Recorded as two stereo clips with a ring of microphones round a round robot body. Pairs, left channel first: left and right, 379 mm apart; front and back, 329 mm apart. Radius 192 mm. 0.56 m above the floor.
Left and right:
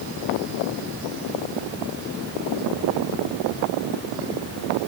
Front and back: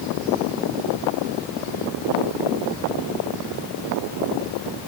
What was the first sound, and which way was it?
Only background noise.